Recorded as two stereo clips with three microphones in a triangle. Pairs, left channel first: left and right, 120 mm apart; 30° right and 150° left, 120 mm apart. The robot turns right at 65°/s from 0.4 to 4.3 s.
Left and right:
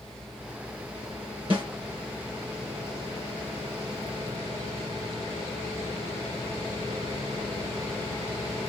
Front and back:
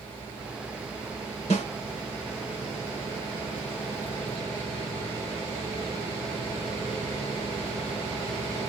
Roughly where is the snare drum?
Ahead right.